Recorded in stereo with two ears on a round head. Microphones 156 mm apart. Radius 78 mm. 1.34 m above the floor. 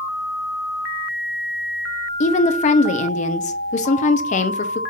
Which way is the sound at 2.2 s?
40° left (ahead or behind).